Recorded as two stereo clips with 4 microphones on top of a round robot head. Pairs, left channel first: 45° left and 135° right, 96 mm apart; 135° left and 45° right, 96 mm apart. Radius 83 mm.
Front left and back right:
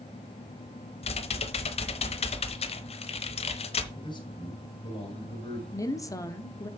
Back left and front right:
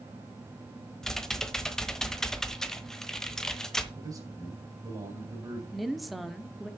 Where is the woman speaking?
45° left, 1.1 m.